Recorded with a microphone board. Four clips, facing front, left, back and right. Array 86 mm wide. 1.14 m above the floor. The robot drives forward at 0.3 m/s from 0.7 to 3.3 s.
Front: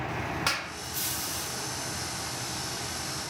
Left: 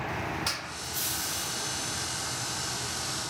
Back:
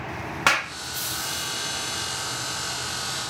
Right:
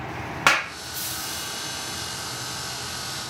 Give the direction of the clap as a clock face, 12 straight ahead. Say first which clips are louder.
Right 15 dB, back 9 dB; 4 o'clock.